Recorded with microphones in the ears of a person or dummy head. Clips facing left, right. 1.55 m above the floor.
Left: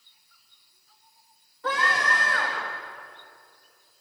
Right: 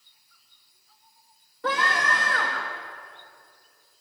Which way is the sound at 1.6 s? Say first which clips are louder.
Right 1 dB; 55° right (ahead or behind).